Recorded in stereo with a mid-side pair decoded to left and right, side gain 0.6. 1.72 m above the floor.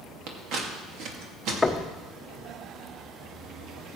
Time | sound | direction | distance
0.3 | scissors | 65° right | 2.5 m
1.6 | knocking | 10° left | 1.1 m